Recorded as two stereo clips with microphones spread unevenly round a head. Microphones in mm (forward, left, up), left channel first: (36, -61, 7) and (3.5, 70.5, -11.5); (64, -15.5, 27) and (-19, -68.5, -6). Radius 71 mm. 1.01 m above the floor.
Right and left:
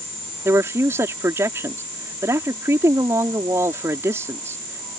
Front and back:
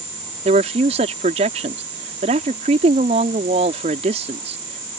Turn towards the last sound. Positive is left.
turn(degrees=180)